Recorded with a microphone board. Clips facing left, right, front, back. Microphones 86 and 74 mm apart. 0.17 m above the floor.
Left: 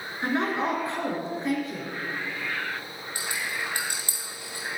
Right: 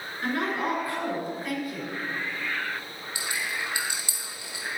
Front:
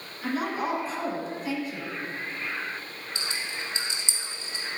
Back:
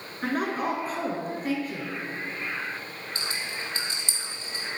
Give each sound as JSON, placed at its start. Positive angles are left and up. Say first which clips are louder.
{"t": 0.2, "sound": "a woman speaking", "louder": "left 2 dB, back 1 dB", "azimuth_deg": 150, "distance_m": 2.5}
{"t": 3.1, "sound": "a rattle", "louder": "even, even", "azimuth_deg": 135, "distance_m": 2.5}